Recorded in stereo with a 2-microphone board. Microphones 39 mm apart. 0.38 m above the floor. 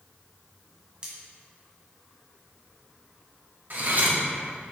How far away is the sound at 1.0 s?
About 1.9 m.